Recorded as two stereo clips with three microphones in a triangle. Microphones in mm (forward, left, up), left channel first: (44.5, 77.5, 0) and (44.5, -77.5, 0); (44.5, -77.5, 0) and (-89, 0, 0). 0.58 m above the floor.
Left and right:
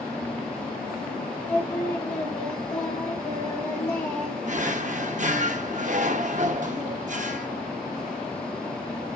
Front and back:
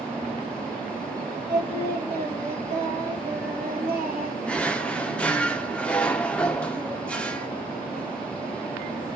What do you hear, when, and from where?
1.5 s singing: 170° left, 3 m
4.5 s a drawer: 110° right, 0.7 m